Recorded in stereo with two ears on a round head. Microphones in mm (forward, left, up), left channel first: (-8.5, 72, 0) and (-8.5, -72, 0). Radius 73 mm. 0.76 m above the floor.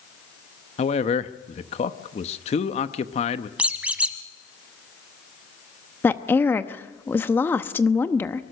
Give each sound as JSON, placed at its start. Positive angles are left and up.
{"t": 0.8, "sound": "a man speaking", "side_deg": 40, "distance_m": 0.8}
{"t": 3.6, "sound": "a squeak", "side_deg": -10, "distance_m": 1.2}
{"t": 6.0, "sound": "a woman speaking", "side_deg": 15, "distance_m": 0.8}